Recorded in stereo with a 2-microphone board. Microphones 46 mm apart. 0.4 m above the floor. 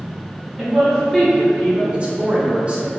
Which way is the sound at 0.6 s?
15° right (ahead or behind).